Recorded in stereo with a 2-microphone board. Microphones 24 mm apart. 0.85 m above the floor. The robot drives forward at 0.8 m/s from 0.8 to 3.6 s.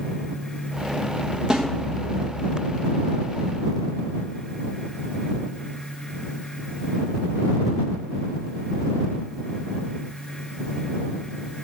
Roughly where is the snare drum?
Right.